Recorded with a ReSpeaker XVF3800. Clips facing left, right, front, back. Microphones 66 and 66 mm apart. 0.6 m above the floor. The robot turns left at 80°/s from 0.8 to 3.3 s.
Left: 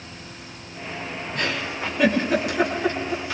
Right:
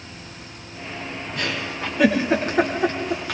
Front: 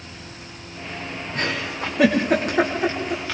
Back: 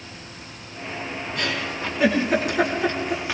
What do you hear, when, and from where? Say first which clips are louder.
1.4 s a giggle: left 1 dB, front 2 dB; 50° left, 7.5 m; by 3.4 s 105° right, 7.5 m